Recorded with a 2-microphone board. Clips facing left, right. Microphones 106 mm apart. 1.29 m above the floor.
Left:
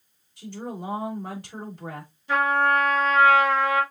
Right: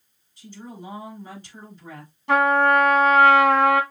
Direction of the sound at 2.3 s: 80° right.